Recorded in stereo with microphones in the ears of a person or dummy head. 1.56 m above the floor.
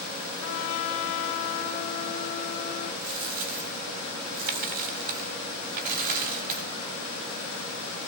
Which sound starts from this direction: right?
A dropped coin, at 3.0 s.